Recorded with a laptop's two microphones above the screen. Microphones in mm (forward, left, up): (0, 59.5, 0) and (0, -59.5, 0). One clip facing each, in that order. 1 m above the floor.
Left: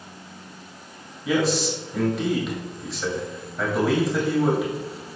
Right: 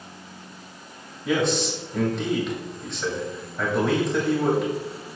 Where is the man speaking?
5° left (ahead or behind), 2.5 m.